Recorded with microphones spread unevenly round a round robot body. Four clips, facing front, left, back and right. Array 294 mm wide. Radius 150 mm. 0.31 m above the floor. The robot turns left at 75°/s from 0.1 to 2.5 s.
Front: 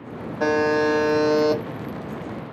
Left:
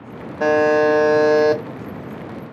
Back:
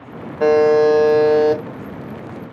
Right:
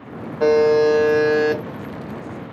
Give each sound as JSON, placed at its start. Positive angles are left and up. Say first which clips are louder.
{"t": 0.4, "sound": "a buzzer", "louder": "right 1 dB, back 8 dB", "azimuth_deg": 140, "distance_m": 1.2}